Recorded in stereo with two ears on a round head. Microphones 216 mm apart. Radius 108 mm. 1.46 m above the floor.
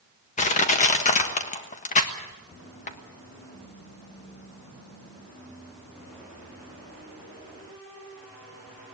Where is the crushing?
30° left (ahead or behind), 1.5 m.